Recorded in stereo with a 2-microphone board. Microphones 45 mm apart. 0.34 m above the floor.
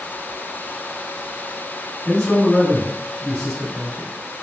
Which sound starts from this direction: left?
A man speaking, at 2.0 s.